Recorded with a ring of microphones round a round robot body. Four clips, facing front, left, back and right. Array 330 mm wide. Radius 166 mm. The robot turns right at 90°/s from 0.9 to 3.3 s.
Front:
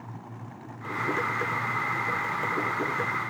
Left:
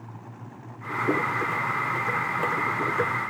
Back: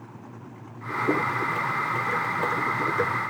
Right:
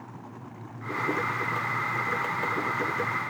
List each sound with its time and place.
Only background noise.